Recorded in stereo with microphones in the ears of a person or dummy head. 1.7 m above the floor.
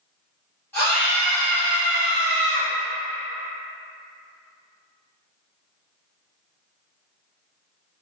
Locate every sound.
0.7 s a scream: 10° left (ahead or behind), 1.3 m; by 2.7 s 65° right (ahead or behind), 0.5 m